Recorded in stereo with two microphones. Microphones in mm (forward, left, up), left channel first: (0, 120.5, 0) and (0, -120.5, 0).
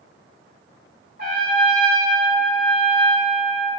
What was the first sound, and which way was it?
A trumpet, 40° right (ahead or behind).